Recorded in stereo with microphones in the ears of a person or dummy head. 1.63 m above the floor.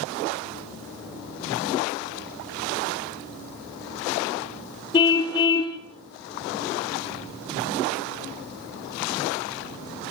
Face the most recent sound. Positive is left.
turn(degrees=30)  # may be behind; listen again after turning